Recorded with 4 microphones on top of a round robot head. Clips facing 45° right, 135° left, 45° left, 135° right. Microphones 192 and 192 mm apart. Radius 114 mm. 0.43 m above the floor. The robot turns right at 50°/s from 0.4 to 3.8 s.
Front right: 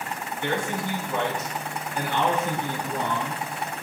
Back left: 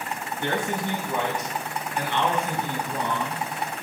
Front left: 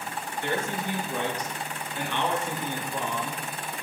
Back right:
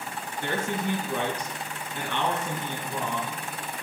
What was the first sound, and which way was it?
A man speaking, 175° left.